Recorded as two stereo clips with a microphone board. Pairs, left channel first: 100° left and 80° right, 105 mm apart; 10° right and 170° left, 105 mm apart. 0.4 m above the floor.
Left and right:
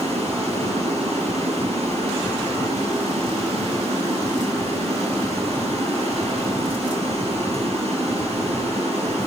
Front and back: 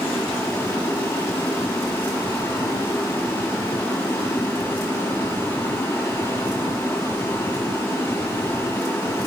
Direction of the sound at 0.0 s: 80° right.